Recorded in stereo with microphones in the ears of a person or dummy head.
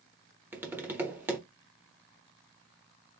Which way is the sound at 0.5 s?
15° right (ahead or behind).